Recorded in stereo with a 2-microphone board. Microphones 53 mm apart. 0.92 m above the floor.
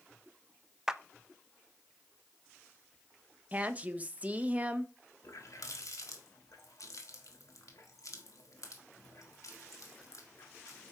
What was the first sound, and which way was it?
A clap, 10° right (ahead or behind).